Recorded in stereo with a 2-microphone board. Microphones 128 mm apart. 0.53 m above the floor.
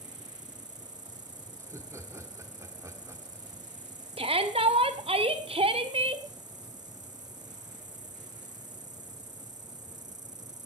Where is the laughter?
20° right (ahead or behind), 1.4 m.